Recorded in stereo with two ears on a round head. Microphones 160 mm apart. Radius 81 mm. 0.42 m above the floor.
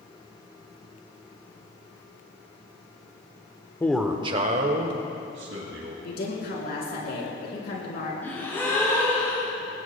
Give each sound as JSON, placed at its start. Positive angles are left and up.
{"t": 3.8, "sound": "a man speaking", "side_deg": 15, "distance_m": 0.9}
{"t": 6.0, "sound": "a woman speaking", "side_deg": 60, "distance_m": 4.0}
{"t": 8.2, "sound": "a gasp", "side_deg": 15, "distance_m": 4.0}